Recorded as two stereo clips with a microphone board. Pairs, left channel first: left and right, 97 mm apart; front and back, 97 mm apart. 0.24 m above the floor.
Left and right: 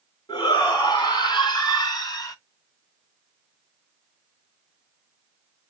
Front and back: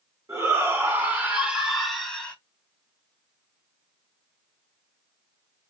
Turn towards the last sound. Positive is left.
turn(degrees=70)